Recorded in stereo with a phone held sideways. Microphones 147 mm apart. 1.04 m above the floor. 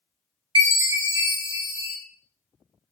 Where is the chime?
30° right (ahead or behind), 1.2 m.